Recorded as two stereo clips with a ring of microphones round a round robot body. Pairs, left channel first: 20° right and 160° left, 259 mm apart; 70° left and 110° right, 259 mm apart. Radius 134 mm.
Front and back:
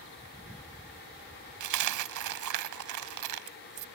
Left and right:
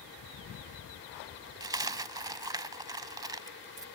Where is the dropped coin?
175° left.